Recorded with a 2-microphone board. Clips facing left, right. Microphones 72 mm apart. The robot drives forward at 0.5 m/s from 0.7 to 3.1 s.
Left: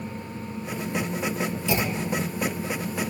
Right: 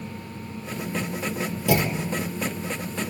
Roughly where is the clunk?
Right.